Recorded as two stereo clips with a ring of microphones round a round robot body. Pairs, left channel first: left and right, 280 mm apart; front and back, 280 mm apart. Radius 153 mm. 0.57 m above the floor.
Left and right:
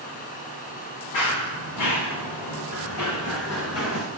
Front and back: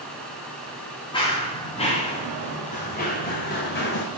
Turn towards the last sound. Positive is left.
turn(degrees=50)